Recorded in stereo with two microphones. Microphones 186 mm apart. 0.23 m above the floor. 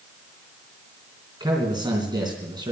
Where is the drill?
No drill in this recording.